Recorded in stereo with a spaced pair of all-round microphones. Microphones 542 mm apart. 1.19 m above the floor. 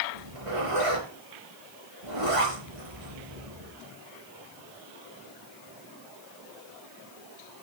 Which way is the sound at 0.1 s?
70° right (ahead or behind).